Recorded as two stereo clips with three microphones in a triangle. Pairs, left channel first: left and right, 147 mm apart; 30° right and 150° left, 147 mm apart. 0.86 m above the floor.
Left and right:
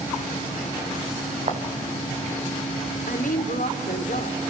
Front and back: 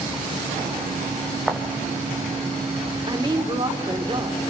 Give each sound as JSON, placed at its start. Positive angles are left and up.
{"t": 1.5, "sound": "footsteps", "azimuth_deg": -125, "distance_m": 2.5}
{"t": 3.1, "sound": "a woman speaking", "azimuth_deg": 95, "distance_m": 2.5}